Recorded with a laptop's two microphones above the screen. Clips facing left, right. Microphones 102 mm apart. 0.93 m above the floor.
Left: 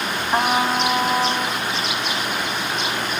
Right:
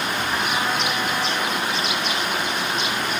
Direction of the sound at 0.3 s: 50° left (ahead or behind).